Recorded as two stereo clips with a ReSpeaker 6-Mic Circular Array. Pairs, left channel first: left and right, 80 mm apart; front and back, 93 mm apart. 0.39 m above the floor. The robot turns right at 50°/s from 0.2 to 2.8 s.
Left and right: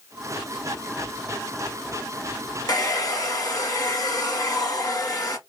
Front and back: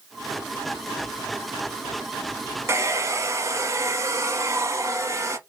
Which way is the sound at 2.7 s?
120° left.